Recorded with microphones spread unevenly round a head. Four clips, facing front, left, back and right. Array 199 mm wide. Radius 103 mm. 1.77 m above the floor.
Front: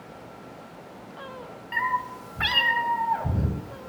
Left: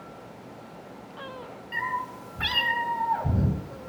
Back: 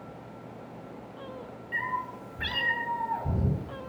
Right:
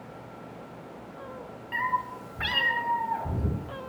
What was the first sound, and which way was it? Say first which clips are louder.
A cat meowing: right 2 dB, front 6 dB; 25° right.